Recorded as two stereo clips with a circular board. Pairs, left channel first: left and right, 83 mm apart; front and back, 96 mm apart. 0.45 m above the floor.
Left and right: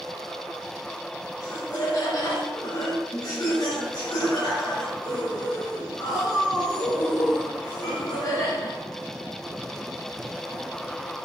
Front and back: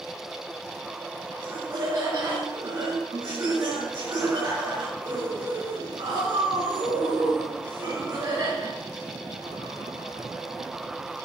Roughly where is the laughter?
Behind left.